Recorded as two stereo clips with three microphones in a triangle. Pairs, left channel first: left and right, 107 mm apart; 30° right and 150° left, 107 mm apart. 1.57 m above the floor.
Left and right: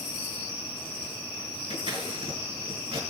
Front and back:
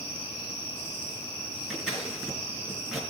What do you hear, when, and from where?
1.7 s scissors: 125° right, 5 m